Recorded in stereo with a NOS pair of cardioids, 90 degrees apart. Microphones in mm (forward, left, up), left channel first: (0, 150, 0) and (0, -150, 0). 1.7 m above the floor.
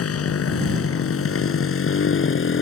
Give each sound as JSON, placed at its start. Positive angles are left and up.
{"t": 0.0, "sound": "a motorcycle", "azimuth_deg": 50}